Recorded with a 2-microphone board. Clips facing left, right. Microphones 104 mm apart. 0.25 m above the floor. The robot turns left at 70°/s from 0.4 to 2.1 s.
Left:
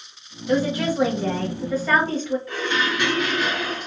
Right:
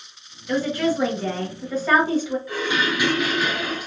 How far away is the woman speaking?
About 0.9 m.